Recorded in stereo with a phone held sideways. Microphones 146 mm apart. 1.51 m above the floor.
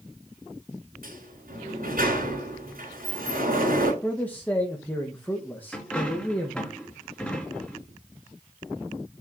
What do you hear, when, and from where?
1.0 s a sliding door: 75° right (ahead or behind), 3.5 m
4.0 s a man speaking: 10° left (ahead or behind), 1.4 m
5.7 s a dropped coin: 5° left (ahead or behind), 3.5 m